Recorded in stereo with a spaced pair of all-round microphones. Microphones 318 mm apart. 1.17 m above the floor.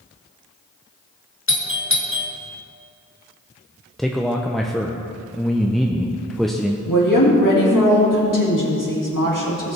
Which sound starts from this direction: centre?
A man speaking, at 4.0 s.